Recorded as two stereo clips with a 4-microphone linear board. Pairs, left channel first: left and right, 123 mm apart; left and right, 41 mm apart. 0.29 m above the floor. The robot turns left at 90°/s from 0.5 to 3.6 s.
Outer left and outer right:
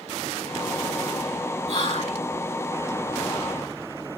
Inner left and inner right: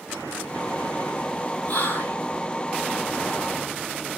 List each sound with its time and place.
1.7 s whispering: 125° left, 2.5 m; by 2.2 s 80° left, 2.5 m